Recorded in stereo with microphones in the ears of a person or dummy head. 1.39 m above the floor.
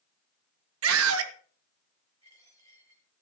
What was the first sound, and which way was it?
A scream, 75° right (ahead or behind).